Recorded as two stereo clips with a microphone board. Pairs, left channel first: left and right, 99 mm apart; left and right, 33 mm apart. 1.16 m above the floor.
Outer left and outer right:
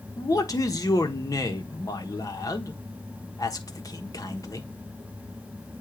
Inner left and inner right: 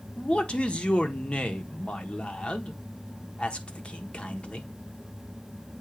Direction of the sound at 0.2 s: 35° left (ahead or behind).